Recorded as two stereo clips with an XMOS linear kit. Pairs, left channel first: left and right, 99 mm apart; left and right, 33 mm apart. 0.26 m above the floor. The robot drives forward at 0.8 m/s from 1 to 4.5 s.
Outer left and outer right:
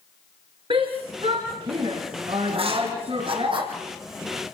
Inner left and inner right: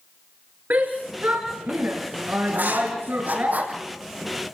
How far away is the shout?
About 4.5 m.